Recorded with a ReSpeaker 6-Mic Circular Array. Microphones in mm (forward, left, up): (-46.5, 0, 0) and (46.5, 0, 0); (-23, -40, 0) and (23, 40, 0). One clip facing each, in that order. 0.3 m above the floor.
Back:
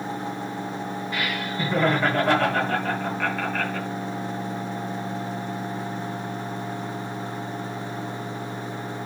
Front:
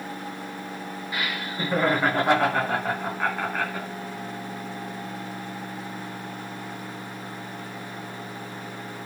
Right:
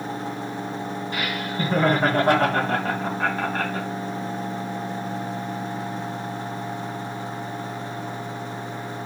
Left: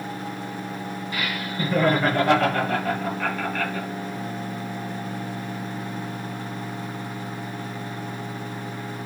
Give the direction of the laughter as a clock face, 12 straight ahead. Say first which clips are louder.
Back 1 dB, right 1 dB; 2 o'clock.